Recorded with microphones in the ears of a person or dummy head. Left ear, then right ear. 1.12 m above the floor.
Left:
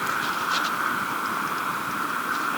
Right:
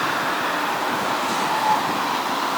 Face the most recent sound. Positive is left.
No sound to turn to.